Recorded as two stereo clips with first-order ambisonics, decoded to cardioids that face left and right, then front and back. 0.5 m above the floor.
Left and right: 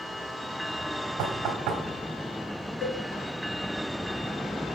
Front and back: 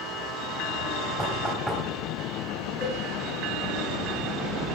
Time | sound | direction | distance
1.2 | knocking | 85° right | 2 m
2.8 | a cowbell | 70° left | 3.5 m